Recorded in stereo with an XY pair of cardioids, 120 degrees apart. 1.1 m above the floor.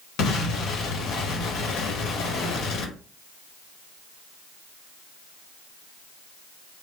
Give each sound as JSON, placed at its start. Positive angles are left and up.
{"t": 0.2, "sound": "an explosion", "azimuth_deg": 70, "distance_m": 0.9}